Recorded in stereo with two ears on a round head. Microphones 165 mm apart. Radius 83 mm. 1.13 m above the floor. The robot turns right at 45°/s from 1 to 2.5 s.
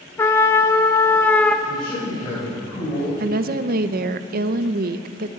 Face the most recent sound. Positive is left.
turn(degrees=-55)  # may be behind; listen again after turning